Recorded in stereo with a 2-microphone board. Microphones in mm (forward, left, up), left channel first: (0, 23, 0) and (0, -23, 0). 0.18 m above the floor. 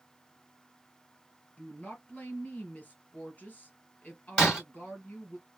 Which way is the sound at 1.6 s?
35° left (ahead or behind).